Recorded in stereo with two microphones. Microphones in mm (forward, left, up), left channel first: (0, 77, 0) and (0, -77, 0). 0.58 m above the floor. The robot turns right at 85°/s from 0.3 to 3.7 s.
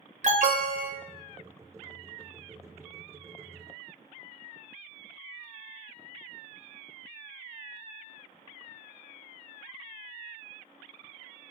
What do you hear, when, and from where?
0.2 s an alarm: 120° right, 0.6 m; by 0.9 s 70° right, 0.6 m